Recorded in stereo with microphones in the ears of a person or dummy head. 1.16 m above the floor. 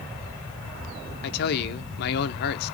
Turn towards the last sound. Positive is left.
turn(degrees=55)  # may be behind; listen again after turning